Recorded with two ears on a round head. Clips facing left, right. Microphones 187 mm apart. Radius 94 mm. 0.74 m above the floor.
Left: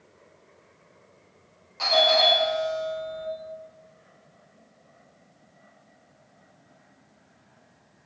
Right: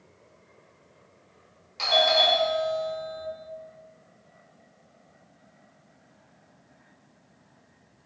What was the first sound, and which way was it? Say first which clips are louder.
A doorbell: left 2 dB; 45° right (ahead or behind).